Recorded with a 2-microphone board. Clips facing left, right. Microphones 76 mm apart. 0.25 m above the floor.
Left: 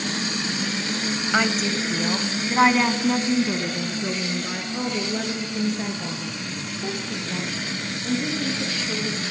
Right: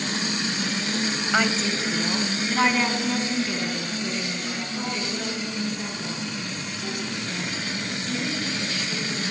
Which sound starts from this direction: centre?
A woman speaking, at 1.3 s.